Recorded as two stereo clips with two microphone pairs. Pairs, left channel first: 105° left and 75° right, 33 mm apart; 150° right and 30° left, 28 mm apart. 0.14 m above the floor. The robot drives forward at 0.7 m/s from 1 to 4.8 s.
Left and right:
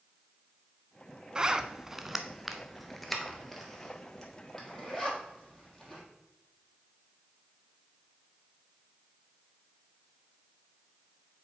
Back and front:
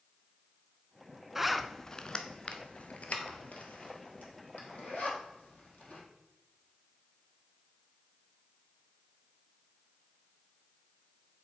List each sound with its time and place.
1.4 s a zipper: 40° right, 0.6 m; by 6.0 s 175° right, 2.5 m